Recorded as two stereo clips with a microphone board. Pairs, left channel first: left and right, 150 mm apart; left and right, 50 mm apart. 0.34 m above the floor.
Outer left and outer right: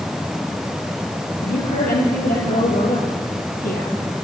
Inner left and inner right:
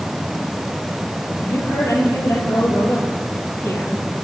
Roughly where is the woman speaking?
Left.